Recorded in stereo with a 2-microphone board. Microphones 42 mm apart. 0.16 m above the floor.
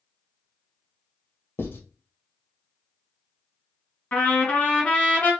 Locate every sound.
1.6 s writing: 60° left (ahead or behind), 1.5 m
4.1 s a trumpet: 35° left (ahead or behind), 2 m